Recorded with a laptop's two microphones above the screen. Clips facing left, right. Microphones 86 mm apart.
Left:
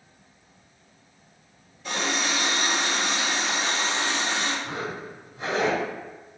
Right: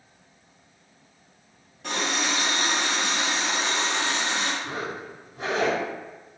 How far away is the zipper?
About 1.3 m.